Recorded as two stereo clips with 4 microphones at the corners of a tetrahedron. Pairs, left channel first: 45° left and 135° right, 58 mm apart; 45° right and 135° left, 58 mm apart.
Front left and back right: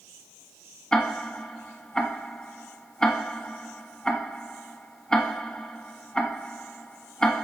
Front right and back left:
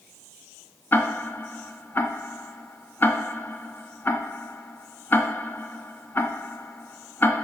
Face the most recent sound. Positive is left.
turn(degrees=-25)